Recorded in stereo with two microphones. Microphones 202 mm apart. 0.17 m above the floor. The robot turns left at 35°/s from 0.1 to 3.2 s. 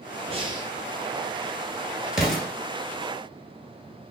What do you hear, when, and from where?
0.3 s breathing: 30° right (ahead or behind), 1.0 m; by 0.7 s 15° right (ahead or behind), 1.0 m
2.1 s an explosion: 5° right (ahead or behind), 1.1 m; by 2.5 s 10° left (ahead or behind), 1.1 m